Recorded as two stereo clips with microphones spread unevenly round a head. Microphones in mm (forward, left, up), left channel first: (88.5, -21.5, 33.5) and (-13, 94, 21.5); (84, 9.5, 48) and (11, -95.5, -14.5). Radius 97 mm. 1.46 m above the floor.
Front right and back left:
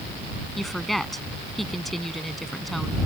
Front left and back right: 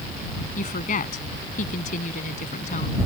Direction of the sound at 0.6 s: 40° left.